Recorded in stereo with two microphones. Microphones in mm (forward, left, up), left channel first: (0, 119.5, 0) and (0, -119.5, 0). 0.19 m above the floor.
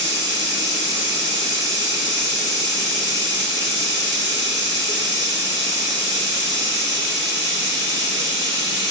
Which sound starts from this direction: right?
Running water, at 0.0 s.